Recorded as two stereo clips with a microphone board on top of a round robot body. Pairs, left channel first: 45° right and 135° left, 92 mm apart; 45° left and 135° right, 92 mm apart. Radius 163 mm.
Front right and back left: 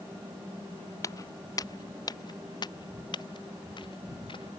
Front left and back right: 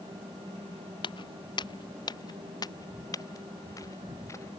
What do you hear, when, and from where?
1.0 s footsteps: 10° left; by 4.5 s 15° right